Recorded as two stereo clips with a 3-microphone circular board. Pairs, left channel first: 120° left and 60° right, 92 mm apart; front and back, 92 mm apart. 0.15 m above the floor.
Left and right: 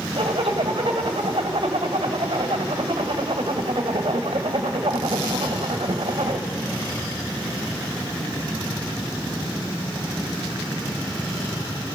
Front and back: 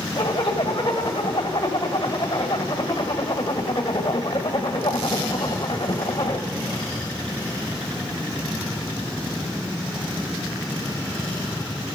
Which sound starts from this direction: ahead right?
A zipper, at 0.2 s.